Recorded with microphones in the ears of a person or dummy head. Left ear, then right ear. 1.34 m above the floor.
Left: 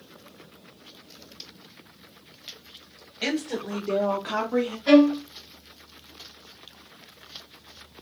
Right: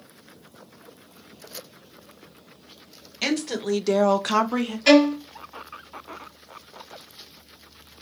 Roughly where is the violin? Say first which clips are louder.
Right 2 dB; right.